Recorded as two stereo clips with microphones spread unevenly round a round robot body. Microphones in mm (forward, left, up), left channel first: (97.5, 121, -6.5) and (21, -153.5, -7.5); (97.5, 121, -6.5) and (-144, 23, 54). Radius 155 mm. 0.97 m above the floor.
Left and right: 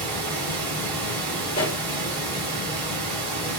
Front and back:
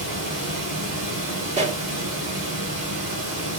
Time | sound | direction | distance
0.0 | running water | 110° right | 3.5 m
1.5 | a pop | 135° left | 0.9 m